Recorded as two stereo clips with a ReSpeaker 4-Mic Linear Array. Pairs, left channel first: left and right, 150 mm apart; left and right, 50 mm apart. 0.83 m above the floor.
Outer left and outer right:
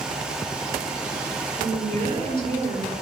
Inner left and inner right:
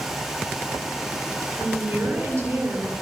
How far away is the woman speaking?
About 9 m.